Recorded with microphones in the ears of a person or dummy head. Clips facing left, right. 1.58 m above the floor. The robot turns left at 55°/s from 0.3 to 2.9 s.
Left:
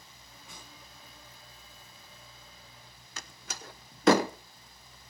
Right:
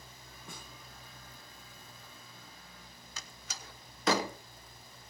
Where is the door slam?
55° left (ahead or behind), 0.8 m.